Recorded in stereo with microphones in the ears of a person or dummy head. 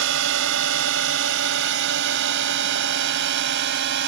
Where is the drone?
70° right (ahead or behind); by 4.1 s 65° right (ahead or behind).